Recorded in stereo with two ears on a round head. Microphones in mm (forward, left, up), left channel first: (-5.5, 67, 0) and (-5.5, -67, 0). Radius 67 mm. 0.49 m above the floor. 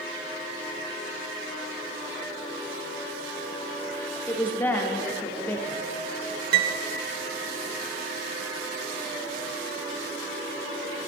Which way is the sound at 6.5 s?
65° right (ahead or behind).